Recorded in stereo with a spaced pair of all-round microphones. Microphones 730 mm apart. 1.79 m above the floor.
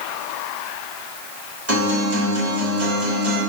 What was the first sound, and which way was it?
A guitar, 20° right (ahead or behind).